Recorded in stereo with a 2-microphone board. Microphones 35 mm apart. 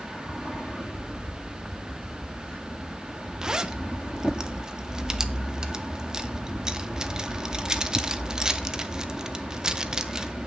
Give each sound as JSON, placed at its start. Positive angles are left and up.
{"t": 3.4, "sound": "a zipper", "side_deg": -20, "distance_m": 0.6}